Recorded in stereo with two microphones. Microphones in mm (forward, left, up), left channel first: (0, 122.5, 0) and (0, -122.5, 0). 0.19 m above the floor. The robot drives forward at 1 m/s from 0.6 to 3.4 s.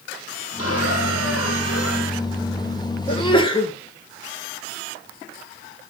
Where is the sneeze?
20° left (ahead or behind), 3.5 m.